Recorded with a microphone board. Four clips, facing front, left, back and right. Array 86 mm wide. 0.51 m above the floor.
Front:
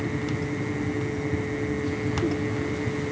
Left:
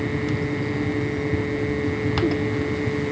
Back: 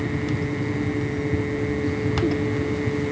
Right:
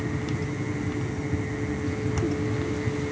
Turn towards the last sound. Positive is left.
No sound to turn to.